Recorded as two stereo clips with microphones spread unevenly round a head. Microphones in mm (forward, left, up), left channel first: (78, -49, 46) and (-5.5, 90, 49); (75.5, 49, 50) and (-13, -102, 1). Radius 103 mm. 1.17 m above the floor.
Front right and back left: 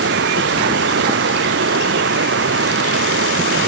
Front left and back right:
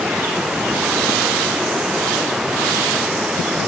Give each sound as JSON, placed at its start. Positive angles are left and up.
{"t": 0.0, "sound": "running water", "azimuth_deg": 150}